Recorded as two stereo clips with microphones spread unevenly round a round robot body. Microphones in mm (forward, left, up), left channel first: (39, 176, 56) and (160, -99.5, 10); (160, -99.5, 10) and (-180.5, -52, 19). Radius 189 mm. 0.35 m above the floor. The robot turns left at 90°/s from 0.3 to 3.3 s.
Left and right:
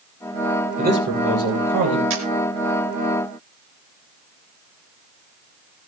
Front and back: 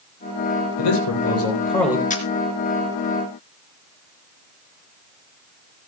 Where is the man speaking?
Straight ahead, 9.5 m; by 2.0 s 110° right, 9.5 m.